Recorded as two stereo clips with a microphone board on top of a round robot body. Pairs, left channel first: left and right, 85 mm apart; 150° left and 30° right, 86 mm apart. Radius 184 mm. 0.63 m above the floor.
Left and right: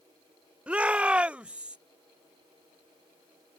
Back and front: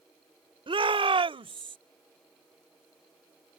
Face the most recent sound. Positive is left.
turn(degrees=-10)